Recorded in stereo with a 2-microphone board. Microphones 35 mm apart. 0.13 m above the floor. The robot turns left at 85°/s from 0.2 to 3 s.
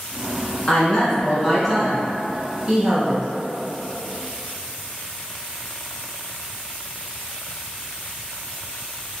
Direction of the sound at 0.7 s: 25° left (ahead or behind).